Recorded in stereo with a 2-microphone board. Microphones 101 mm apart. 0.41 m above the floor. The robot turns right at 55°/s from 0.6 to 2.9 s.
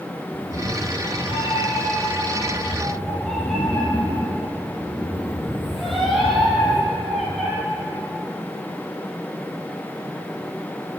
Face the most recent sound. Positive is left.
turn(degrees=180)